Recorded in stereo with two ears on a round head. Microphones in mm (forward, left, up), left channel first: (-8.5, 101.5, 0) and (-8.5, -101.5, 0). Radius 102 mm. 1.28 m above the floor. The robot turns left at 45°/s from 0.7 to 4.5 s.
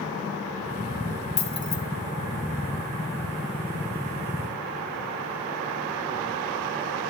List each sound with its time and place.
1.4 s keys jangling: 30° left (ahead or behind), 2 m; by 1.8 s 15° left (ahead or behind), 2 m